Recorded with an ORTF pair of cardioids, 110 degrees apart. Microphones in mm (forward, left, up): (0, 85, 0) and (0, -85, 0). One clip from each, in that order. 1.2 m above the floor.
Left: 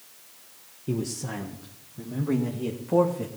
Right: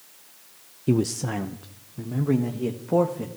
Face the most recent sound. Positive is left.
turn(degrees=-10)